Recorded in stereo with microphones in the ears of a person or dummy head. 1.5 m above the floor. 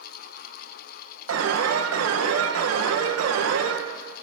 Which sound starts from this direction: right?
An alarm, at 1.3 s.